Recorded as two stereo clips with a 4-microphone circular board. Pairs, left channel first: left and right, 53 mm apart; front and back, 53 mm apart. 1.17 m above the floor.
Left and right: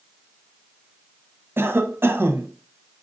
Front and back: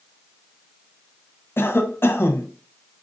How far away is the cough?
About 0.8 m.